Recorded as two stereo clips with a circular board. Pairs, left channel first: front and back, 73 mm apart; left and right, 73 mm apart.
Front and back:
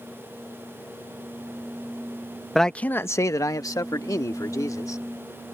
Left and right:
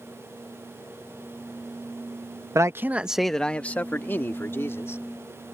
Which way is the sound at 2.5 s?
85° right.